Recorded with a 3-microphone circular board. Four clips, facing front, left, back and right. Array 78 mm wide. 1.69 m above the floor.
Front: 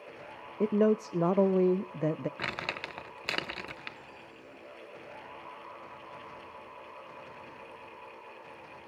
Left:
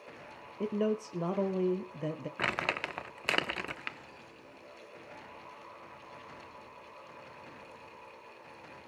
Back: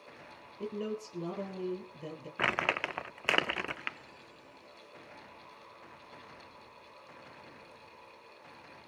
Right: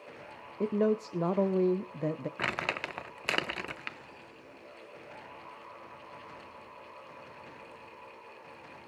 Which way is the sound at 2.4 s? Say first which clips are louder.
Left 3 dB, back 5 dB; 175° left.